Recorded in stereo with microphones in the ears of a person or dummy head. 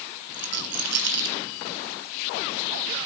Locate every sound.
0.3 s a rattle: 55° right (ahead or behind), 1.0 m